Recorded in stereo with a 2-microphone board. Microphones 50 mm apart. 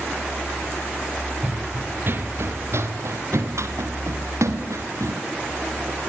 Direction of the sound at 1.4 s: 30° right (ahead or behind).